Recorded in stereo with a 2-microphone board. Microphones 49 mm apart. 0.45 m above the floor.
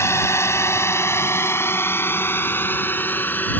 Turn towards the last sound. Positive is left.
turn(degrees=40)  # may be behind; listen again after turning